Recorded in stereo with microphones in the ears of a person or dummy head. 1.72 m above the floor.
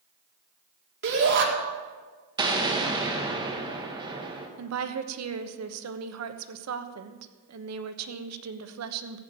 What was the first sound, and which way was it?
A shout, 60° right (ahead or behind).